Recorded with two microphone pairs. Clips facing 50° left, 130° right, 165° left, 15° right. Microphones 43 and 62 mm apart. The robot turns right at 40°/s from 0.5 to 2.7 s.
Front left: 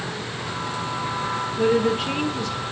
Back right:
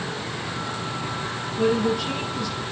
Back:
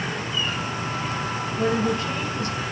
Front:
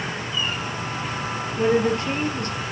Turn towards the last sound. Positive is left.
turn(degrees=20)